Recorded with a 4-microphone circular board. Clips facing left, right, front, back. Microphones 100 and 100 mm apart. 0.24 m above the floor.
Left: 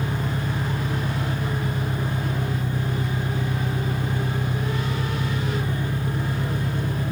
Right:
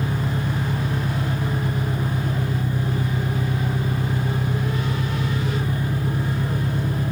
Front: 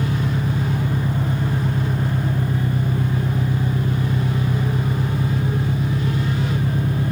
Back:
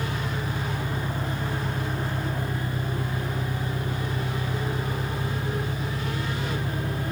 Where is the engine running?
5° right.